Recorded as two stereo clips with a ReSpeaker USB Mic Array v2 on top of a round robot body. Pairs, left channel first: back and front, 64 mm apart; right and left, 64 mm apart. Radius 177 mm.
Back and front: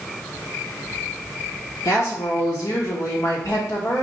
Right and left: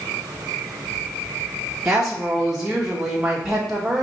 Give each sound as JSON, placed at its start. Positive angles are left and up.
{"t": 1.9, "sound": "a woman speaking", "azimuth_deg": 170, "distance_m": 1.1}